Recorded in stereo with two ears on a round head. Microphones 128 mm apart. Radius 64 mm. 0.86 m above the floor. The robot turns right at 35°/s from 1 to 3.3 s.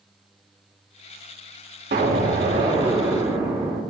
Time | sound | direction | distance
1.9 | an explosion | 70° right | 1.8 m